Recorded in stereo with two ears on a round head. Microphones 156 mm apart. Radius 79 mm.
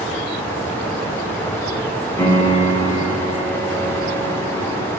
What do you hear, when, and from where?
2.2 s a piano: 15° left (ahead or behind), 0.6 m